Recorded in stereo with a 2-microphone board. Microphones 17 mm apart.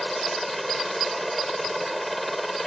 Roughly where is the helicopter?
Centre.